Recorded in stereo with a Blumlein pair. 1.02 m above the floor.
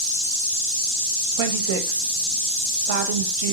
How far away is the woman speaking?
About 0.7 m.